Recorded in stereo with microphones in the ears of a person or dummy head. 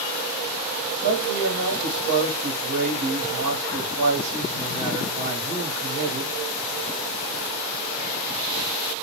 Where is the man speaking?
60° right (ahead or behind), 1.2 m.